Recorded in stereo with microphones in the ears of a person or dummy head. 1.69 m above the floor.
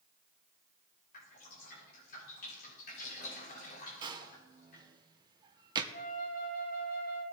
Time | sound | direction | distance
1.1 | dripping | 50° left (ahead or behind) | 5.5 m
4.0 | a door slam | 20° right (ahead or behind) | 1.0 m
5.9 | a flute | 50° left (ahead or behind) | 3 m